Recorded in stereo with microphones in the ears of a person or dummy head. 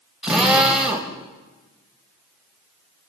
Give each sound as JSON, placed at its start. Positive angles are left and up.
{"t": 0.2, "sound": "a drill", "side_deg": -5, "distance_m": 3.0}